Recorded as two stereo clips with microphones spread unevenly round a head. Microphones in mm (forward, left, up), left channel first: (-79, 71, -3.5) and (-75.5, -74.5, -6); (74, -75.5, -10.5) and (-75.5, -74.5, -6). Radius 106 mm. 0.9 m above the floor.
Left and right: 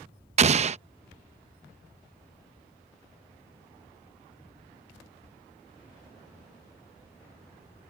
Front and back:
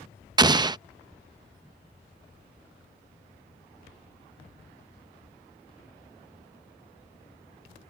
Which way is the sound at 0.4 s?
120° right.